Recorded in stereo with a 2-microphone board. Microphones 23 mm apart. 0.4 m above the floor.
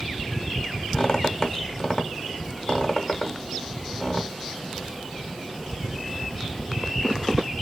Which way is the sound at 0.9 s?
30° left (ahead or behind).